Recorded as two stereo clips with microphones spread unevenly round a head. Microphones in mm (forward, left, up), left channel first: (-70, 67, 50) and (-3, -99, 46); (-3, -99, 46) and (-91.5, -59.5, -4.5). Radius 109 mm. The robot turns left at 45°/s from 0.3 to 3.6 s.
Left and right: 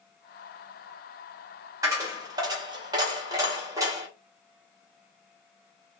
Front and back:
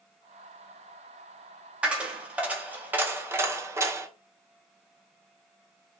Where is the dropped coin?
25° right, 0.5 m; by 4.1 s 105° right, 0.5 m.